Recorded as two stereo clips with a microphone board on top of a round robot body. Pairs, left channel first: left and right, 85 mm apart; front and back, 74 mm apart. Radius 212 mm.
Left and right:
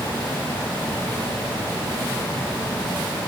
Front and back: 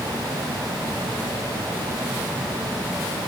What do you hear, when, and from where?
Only background noise.